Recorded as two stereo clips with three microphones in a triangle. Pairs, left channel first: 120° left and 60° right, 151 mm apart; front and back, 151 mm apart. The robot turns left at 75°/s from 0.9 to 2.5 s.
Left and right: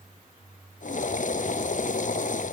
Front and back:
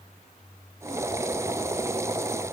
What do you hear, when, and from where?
Only background noise.